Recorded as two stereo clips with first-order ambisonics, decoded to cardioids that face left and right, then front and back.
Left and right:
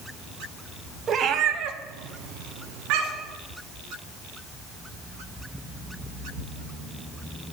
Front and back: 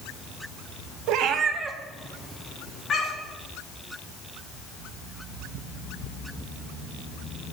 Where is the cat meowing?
155° right, 0.5 m; by 3.4 s 65° right, 1.5 m.